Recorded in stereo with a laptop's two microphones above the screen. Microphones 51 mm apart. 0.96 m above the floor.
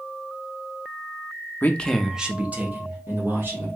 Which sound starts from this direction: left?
A man speaking, at 1.6 s.